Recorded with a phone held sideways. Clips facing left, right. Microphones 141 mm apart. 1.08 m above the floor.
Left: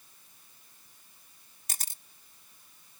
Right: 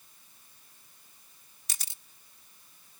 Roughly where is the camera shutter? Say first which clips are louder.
Left 4 dB; left.